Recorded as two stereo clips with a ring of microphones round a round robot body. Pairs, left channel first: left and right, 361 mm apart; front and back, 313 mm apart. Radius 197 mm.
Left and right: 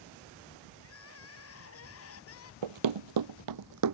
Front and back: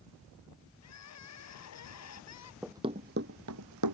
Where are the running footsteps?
90° right; by 4.0 s 135° right.